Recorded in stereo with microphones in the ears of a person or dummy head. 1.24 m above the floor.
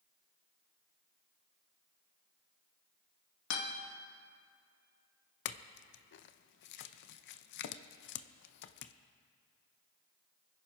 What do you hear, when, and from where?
3.5 s a guitar: 75° left (ahead or behind), 2.5 m
5.5 s a clink: 55° left (ahead or behind), 0.6 m